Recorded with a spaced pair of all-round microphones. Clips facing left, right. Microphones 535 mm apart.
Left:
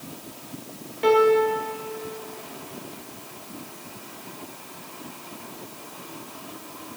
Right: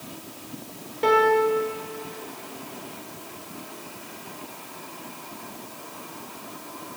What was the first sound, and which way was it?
A piano, 55° right (ahead or behind).